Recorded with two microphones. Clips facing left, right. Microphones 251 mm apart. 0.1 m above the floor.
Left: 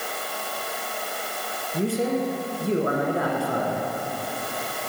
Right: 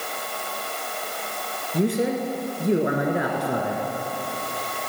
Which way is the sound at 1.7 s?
20° right (ahead or behind).